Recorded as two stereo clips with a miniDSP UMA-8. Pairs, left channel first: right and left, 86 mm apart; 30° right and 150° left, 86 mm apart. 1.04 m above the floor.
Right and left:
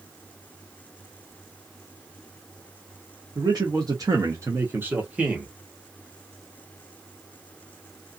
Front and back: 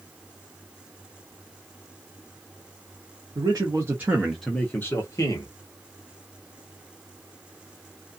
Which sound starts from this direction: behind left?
A man speaking, at 3.4 s.